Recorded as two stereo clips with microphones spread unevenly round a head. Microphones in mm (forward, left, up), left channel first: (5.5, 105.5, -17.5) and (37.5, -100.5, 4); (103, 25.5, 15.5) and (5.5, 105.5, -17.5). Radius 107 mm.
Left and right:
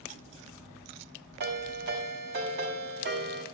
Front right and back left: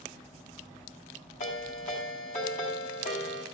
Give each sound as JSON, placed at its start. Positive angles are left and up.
{"t": 1.4, "sound": "a ringtone", "azimuth_deg": -50, "distance_m": 5.0}